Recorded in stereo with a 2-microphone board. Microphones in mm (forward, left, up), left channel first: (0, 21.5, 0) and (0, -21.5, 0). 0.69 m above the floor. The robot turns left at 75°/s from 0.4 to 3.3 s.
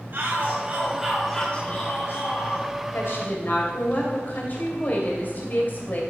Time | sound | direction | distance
0.1 | a shout | 120° right | 3 m
2.9 | a woman speaking | 70° left (ahead or behind) | 3 m